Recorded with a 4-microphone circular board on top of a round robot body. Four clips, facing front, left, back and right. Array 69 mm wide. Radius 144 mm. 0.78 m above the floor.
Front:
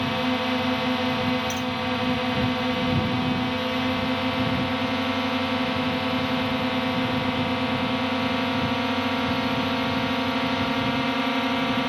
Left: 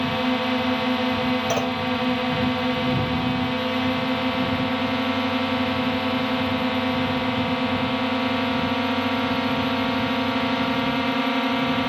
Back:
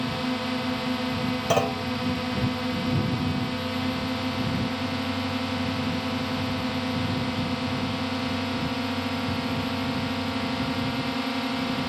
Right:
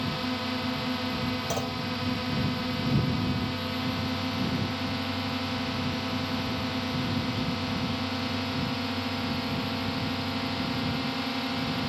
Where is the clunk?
150° left.